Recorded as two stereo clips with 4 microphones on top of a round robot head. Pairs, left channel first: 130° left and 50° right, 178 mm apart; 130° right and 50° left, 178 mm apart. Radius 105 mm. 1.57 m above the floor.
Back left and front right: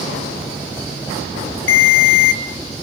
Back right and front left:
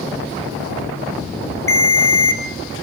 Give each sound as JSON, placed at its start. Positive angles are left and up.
{"t": 1.7, "sound": "a ringtone", "azimuth_deg": 155, "distance_m": 1.2}